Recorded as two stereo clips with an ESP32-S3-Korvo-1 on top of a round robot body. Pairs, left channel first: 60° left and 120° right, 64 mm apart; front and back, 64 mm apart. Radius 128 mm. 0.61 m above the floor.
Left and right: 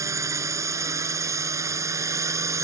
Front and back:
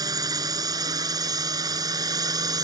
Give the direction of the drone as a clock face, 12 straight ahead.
5 o'clock.